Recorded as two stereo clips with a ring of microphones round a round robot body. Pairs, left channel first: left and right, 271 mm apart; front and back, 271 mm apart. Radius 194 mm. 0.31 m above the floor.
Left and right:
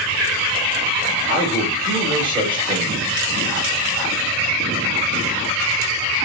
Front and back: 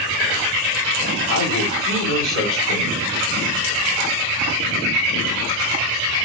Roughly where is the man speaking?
Ahead.